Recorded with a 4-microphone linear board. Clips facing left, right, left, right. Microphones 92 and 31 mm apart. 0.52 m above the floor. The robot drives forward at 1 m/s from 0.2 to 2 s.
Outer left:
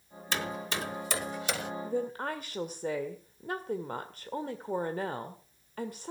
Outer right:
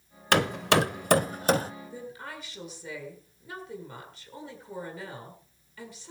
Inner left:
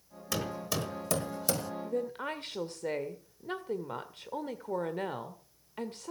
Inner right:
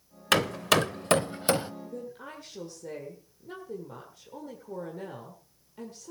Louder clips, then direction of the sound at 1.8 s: Outer left 8 dB, inner left 6 dB; 55° left (ahead or behind).